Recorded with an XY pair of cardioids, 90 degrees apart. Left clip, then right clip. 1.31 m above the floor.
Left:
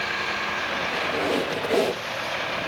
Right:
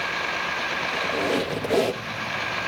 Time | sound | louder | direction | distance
0.9 | a squeak | right 1 dB | 5° right | 2.5 m